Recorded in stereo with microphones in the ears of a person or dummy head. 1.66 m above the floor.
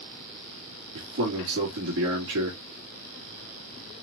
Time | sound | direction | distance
0.9 | a man speaking | 65° right (ahead or behind) | 2.5 m